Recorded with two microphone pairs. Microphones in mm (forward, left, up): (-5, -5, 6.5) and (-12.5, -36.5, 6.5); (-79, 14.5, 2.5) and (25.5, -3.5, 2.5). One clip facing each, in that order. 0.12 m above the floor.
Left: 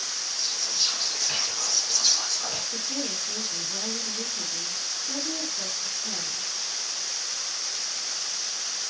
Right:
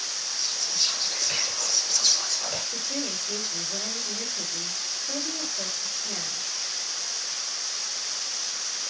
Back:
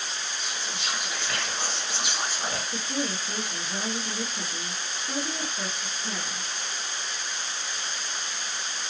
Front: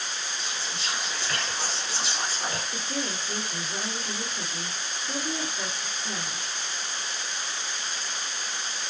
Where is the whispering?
140° left, 1.4 m.